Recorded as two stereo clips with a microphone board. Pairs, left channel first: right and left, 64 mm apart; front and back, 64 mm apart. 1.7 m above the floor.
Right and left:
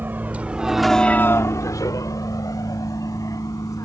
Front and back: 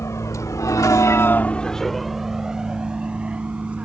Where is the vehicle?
35° left; by 3.9 s 110° right.